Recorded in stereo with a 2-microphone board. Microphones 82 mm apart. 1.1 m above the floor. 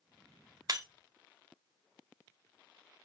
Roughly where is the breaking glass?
Right.